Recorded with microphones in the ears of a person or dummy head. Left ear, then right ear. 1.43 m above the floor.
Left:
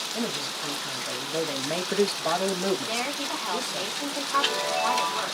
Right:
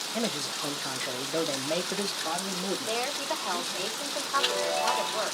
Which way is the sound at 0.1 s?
55° right (ahead or behind).